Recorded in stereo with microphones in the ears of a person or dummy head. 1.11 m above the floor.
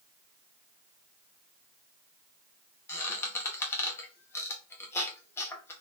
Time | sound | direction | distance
2.9 | a squeak | 15° left (ahead or behind) | 1.3 m